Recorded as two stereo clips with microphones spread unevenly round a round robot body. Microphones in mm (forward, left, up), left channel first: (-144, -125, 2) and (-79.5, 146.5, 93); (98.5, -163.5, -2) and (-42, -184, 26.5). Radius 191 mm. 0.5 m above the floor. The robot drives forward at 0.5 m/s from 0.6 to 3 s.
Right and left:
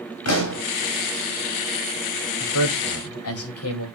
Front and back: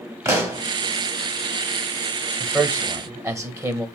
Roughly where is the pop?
Right.